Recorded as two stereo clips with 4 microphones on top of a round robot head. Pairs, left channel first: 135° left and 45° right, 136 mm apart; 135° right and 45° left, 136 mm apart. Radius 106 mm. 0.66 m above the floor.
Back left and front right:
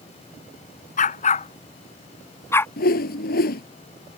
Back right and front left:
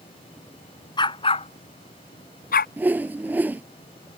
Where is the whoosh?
125° left.